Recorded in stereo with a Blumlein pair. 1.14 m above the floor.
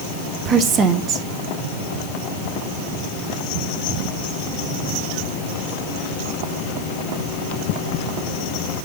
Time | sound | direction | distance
0.5 | a woman speaking | 30° right | 1.0 m